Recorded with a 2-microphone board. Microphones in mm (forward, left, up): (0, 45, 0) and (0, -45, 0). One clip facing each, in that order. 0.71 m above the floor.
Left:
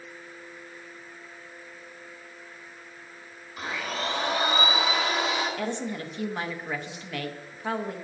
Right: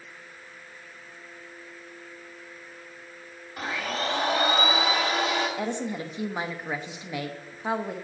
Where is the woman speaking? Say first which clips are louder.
Right 1 dB; 15° right (ahead or behind), 0.7 m.